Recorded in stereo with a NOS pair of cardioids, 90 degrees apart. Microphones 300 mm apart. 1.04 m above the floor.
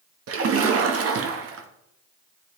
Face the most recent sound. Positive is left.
turn(degrees=-50)